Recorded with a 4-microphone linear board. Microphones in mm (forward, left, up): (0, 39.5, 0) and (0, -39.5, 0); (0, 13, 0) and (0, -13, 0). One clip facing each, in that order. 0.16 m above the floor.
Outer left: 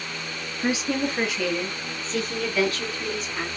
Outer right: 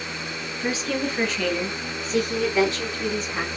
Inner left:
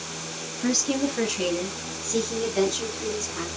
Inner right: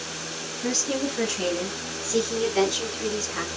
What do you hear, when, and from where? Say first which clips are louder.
0.6 s a woman speaking: outer left 1 dB, inner left 2 dB; 25° left (ahead or behind), 2.5 m; by 3.5 s 40° right (ahead or behind), 2 m